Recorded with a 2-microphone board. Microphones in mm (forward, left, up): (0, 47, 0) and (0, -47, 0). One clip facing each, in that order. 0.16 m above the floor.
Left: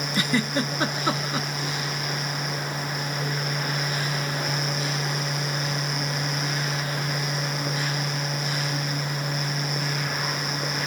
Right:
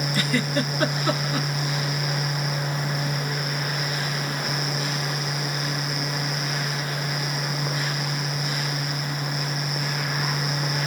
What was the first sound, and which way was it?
A giggle, 20° left (ahead or behind).